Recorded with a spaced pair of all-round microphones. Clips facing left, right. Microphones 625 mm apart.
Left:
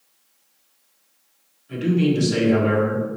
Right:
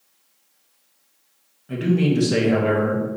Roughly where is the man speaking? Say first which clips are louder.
Even; right.